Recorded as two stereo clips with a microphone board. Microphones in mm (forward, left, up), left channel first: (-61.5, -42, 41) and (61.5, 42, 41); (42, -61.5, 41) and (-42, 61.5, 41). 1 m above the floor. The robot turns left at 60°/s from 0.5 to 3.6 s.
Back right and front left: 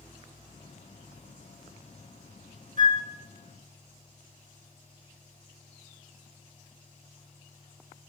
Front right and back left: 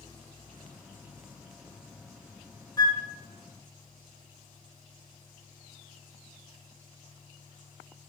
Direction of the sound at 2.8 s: 5° left.